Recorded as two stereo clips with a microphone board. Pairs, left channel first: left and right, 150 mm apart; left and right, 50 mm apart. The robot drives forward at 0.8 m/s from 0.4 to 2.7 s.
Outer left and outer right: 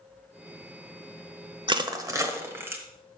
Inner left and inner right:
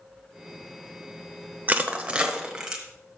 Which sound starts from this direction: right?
Crushing, at 1.7 s.